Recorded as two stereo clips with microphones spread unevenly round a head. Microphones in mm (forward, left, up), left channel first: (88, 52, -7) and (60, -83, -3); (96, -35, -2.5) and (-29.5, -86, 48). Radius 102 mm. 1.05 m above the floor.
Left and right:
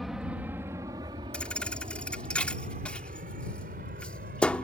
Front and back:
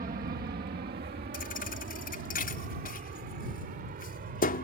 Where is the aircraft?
170° left; by 4.7 s 140° right.